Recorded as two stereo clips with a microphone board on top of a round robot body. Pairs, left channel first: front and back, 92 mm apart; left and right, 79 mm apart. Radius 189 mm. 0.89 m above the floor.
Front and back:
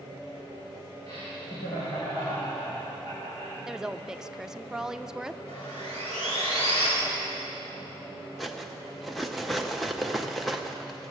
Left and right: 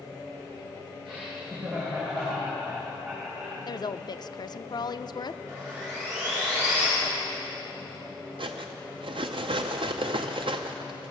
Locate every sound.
1.1 s laughter: 5° right, 3.5 m; by 3.6 s 10° right, 5 m
3.7 s a woman speaking: 95° left, 0.6 m
5.5 s sawing: 25° right, 4 m
8.4 s cutlery clinking: 90° right, 0.6 m